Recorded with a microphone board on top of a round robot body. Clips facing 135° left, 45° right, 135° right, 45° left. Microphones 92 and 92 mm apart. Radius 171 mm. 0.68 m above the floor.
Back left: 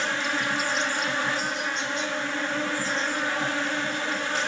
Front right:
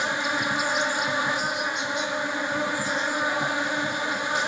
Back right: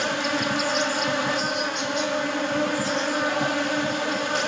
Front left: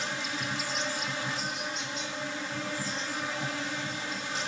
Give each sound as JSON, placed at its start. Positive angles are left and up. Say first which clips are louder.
{"t": 0.0, "sound": "an insect", "louder": "front right 1 dB, back right 10 dB", "azimuth_deg": -120, "distance_m": 0.9}